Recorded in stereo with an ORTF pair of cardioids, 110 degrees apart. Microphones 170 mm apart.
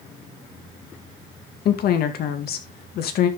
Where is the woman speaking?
65° left, 2 m.